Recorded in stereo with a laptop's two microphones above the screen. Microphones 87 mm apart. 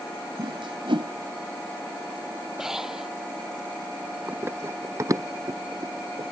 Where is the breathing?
5° right (ahead or behind).